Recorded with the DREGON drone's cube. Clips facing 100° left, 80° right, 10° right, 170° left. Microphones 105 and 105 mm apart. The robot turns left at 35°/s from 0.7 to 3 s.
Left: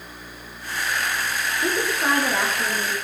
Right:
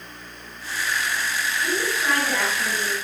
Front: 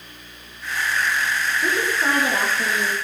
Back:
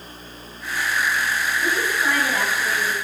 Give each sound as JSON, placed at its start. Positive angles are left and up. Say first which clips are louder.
{"t": 1.6, "sound": "a woman speaking", "louder": "left 3 dB, front 1 dB", "azimuth_deg": 65, "distance_m": 7.0}